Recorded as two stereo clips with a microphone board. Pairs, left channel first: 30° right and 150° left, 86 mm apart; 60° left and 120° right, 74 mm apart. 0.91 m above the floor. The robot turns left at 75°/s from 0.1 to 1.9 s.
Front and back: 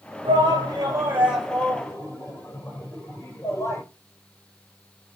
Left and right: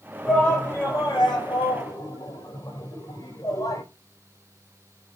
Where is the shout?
150° left, 5 m; by 3.8 s 30° left, 5 m.